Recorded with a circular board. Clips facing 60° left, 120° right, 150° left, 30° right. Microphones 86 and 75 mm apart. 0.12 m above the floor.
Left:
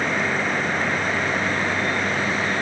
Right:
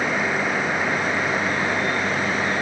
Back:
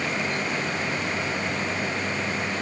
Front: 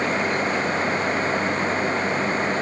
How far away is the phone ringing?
I don't hear a phone ringing.